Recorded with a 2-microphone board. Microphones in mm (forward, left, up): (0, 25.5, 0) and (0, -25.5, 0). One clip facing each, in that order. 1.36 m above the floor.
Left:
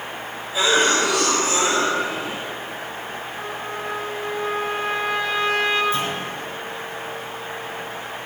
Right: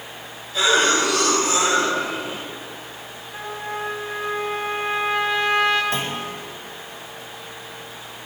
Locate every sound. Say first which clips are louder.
0.5 s a cough: even; 10° left (ahead or behind), 5 m
3.3 s a trumpet: right 4 dB; 40° right (ahead or behind), 3 m
5.9 s a clunk: left 2 dB; 75° right (ahead or behind), 4.5 m